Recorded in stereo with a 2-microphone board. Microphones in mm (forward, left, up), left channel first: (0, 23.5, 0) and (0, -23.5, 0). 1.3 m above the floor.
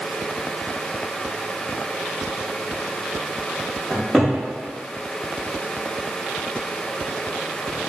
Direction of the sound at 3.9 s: Centre (ahead or behind).